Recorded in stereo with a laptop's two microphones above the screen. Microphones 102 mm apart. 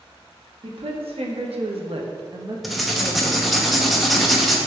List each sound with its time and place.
0.6 s a woman speaking: 65° right (ahead or behind), 1.4 m; by 3.6 s 10° right (ahead or behind), 1.5 m
2.6 s writing: centre (ahead or behind), 0.9 m